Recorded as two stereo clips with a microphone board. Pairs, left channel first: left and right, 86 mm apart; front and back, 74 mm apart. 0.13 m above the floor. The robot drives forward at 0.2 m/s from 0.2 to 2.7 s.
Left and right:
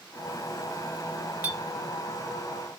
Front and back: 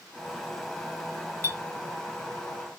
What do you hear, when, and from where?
1.4 s a clink: 35° right, 1.0 m; by 2.8 s 60° right, 1.0 m